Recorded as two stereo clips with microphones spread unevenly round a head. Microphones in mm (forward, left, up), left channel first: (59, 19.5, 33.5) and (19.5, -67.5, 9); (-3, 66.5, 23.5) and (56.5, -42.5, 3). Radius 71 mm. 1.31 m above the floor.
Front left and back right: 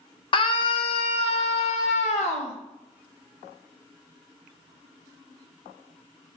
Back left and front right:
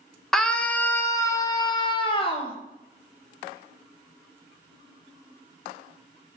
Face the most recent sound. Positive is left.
turn(degrees=80)